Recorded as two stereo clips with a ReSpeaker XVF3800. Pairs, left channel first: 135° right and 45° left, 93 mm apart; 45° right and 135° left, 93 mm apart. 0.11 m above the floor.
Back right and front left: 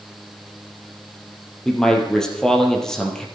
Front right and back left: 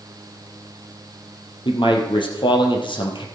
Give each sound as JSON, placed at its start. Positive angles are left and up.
{"t": 1.6, "sound": "a man speaking", "azimuth_deg": -50, "distance_m": 3.0}